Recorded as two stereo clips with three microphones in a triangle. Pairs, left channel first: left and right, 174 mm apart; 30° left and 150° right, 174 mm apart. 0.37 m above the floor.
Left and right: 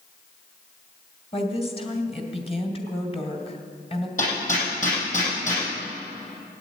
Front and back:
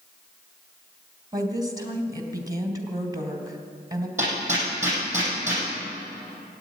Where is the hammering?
135° left, 7.5 m.